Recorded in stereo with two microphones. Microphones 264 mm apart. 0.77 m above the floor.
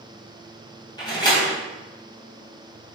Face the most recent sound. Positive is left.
turn(degrees=15)  # may be behind; listen again after turning